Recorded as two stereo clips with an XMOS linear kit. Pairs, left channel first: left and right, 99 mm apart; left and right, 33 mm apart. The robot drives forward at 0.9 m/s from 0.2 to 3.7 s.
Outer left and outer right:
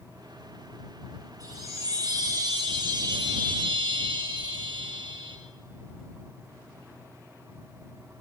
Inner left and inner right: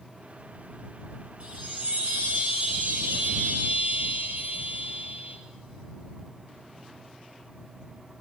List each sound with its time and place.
1.4 s a chime: 40° right (ahead or behind), 5 m; by 5.4 s 60° right (ahead or behind), 3.5 m